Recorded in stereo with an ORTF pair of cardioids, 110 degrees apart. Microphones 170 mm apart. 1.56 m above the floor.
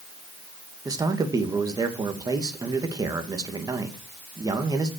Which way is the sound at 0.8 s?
20° right.